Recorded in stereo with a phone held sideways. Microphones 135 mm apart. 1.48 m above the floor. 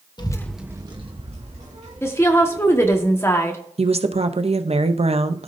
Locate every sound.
0.2 s a child speaking: 35° left (ahead or behind), 0.9 m; by 3.0 s 70° right (ahead or behind), 4 m
2.0 s a woman speaking: 20° left (ahead or behind), 1.4 m
3.8 s a woman speaking: 55° right (ahead or behind), 0.7 m